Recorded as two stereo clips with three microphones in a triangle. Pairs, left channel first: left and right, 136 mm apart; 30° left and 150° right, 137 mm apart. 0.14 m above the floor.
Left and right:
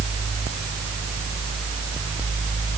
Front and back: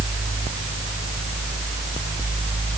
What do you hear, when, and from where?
Only background noise.